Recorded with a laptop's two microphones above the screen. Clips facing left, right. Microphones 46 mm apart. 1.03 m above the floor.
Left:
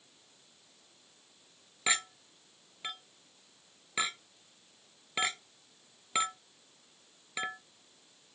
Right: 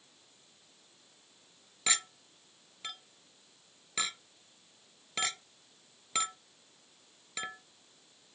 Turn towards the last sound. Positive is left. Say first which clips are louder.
# left 2 dB
turn(degrees=15)  # may be behind; listen again after turning